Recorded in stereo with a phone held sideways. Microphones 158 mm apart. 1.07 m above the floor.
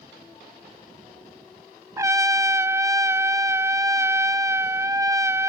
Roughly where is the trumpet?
Centre.